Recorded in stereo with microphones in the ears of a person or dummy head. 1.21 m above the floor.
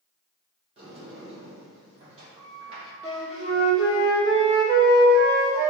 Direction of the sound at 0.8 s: 30° right (ahead or behind).